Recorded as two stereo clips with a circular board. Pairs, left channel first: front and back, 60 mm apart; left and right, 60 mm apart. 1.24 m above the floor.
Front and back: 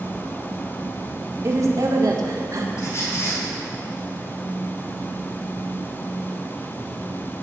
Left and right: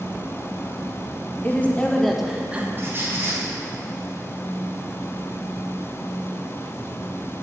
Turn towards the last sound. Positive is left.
turn(degrees=-35)